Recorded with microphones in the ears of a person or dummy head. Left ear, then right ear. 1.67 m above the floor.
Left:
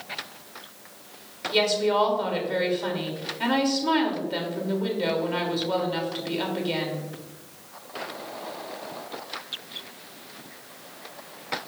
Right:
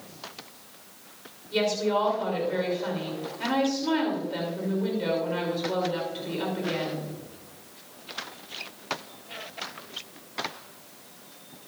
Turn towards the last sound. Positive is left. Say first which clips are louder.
# left 3 dB
turn(degrees=20)  # may be behind; listen again after turning